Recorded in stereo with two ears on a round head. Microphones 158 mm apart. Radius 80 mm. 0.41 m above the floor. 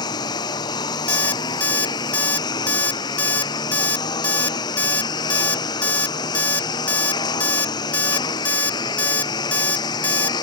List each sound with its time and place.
0.0 s a lawn mower: 25° left (ahead or behind)
1.1 s an alarm clock: 10° left (ahead or behind)